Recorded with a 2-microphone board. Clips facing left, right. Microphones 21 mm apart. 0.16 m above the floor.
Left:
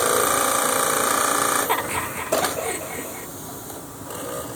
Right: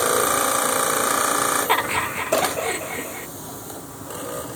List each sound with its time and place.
1.7 s laughter: 25° right (ahead or behind); by 3.3 s 20° right (ahead or behind)